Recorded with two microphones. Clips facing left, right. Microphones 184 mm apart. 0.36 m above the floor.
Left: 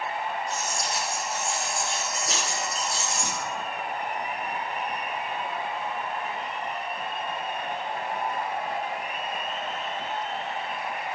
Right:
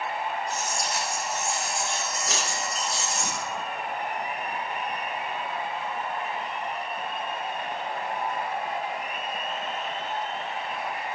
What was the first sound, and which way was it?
Keys jangling, 25° left (ahead or behind).